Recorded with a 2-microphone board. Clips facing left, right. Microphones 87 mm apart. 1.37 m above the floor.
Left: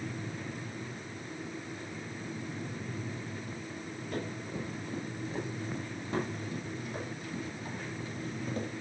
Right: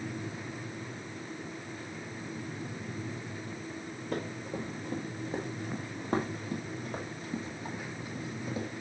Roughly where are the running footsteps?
Right.